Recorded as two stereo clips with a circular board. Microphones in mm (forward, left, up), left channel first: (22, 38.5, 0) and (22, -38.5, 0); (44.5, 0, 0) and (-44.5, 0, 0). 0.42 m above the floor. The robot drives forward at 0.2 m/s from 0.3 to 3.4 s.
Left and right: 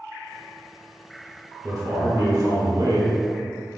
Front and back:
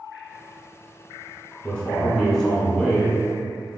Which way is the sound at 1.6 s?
75° right.